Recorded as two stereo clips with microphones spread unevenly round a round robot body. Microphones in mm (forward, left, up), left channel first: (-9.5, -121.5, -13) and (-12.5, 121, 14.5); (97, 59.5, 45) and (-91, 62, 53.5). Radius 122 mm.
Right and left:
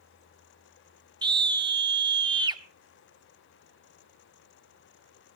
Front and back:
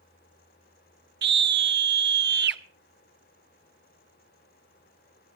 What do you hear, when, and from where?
1.2 s a scream: 165° left, 1.5 m